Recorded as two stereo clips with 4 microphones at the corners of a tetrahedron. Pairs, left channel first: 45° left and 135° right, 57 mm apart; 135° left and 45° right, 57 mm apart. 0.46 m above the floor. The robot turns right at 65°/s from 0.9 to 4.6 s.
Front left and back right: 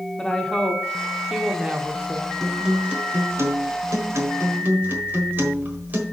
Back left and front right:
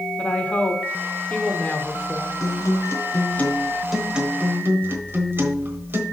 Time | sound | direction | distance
0.2 | a woman speaking | 110° left | 0.9 m
2.4 | a guitar | 130° left | 1.2 m